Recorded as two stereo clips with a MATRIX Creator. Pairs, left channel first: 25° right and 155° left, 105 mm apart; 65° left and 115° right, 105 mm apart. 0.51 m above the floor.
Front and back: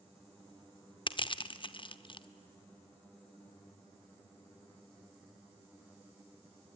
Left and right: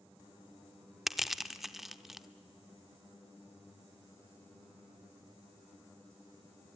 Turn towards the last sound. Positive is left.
turn(degrees=-25)